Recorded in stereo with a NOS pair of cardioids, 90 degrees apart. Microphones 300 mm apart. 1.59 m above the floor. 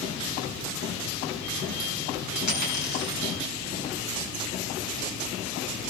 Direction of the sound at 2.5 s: 70° left.